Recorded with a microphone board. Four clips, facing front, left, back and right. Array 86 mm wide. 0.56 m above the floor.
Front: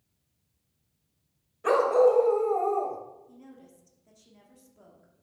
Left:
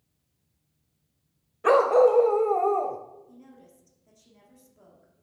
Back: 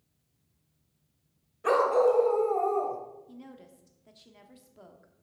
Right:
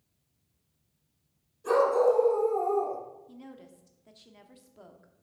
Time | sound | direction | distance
1.6 | a dog barking | 90° left | 0.9 m
3.3 | a woman speaking | 130° right | 1.1 m